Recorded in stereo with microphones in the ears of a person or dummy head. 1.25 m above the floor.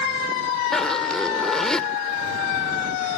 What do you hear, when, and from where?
0.7 s a zipper: 5° left (ahead or behind)